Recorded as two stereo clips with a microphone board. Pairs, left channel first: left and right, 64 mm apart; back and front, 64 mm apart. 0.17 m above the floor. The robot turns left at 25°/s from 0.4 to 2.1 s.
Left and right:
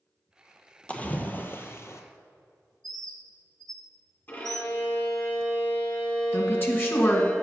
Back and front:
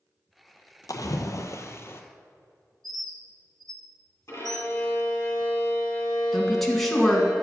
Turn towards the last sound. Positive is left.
turn(degrees=95)